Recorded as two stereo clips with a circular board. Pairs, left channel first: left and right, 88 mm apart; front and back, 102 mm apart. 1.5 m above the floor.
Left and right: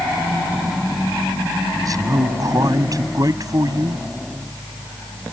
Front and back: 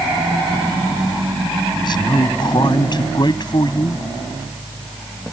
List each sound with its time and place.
1.8 s a man speaking: 45° right